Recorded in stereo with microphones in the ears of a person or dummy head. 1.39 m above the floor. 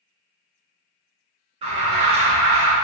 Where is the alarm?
35° right (ahead or behind), 1.8 m.